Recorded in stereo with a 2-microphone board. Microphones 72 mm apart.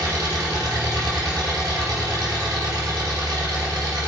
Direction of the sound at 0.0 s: 60° right (ahead or behind).